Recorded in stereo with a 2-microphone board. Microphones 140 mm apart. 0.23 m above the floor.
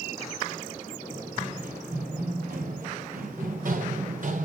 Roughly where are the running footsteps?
Right.